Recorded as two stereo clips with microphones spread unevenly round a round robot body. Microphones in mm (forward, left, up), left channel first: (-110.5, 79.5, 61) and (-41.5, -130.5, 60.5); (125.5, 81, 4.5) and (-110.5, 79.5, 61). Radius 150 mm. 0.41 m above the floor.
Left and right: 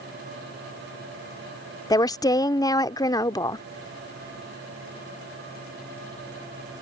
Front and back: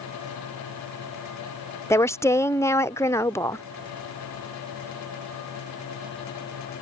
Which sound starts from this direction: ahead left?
A woman speaking, at 1.9 s.